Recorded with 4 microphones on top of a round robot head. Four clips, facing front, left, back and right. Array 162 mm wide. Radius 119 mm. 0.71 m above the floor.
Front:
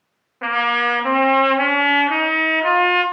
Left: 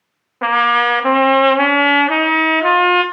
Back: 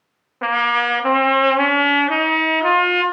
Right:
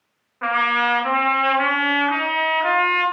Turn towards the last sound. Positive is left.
turn(degrees=105)